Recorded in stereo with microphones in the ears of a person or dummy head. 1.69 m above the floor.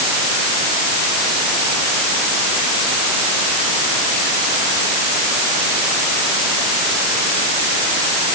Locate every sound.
Only background noise.